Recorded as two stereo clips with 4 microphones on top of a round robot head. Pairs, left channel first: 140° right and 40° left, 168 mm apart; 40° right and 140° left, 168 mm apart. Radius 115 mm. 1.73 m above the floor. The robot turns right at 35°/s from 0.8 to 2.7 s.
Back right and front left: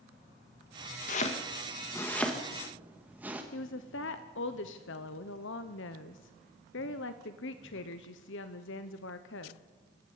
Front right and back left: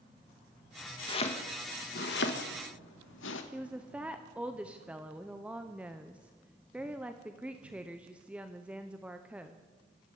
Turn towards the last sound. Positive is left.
turn(degrees=-135)